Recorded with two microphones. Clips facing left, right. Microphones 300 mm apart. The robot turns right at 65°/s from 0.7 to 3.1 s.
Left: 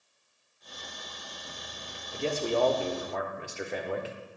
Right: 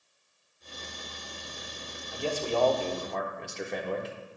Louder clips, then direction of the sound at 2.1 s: Left 1 dB; 30° left (ahead or behind).